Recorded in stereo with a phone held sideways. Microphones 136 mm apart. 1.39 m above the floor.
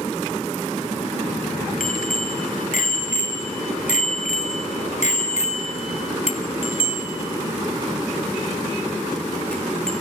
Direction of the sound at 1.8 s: 85° left.